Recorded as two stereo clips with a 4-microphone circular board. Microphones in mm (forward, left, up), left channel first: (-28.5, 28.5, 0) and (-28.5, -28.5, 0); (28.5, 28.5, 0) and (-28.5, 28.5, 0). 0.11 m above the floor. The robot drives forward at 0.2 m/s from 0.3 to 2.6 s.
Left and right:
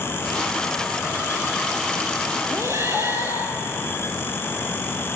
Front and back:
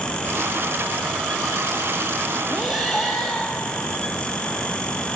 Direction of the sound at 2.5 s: 100° right.